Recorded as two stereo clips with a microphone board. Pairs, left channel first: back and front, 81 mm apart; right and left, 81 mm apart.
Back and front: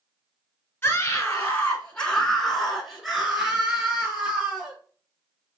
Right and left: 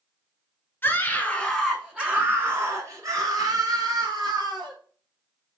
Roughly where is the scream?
Behind right.